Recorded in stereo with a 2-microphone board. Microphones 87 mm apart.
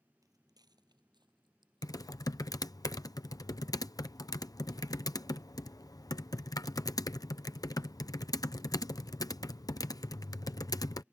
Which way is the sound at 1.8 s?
45° left (ahead or behind).